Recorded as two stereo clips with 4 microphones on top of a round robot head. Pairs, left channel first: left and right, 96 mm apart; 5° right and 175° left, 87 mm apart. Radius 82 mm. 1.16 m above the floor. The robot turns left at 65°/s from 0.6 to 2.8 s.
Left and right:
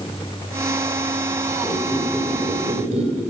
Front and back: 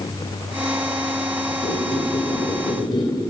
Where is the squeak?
20° left, 4 m; by 3.2 s 55° right, 4 m.